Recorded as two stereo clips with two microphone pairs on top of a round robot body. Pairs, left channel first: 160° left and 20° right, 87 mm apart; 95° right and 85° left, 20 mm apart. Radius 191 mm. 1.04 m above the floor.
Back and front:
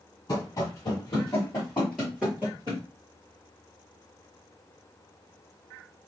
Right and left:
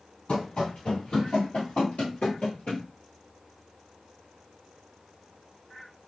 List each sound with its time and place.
0.3 s running footsteps: 145° right, 1.5 m; by 2.8 s 20° right, 1.1 m